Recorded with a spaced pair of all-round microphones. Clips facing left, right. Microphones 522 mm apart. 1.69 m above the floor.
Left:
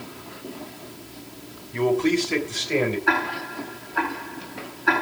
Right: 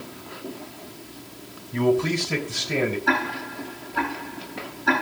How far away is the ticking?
About 9.5 m.